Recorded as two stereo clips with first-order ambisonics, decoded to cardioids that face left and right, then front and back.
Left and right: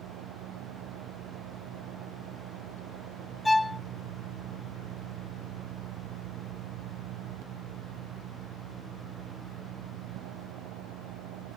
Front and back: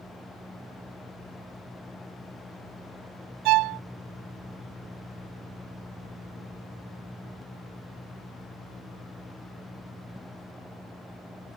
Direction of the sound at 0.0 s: 90° right.